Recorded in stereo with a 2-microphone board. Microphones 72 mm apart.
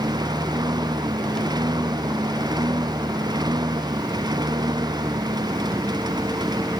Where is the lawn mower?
70° right (ahead or behind).